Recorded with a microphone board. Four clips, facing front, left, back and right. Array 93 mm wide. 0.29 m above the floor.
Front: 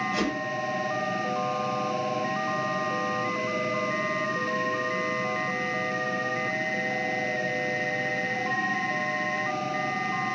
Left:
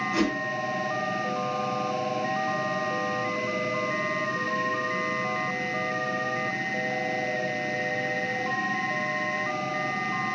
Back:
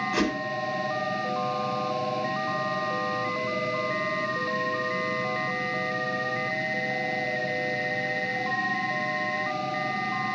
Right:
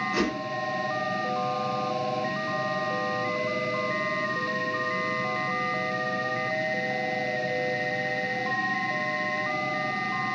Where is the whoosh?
175° left, 2.5 m.